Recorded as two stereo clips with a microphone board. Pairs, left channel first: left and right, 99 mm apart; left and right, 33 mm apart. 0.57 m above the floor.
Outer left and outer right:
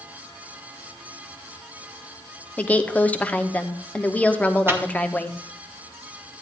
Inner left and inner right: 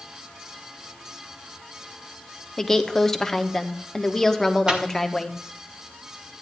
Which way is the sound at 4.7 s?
20° right (ahead or behind).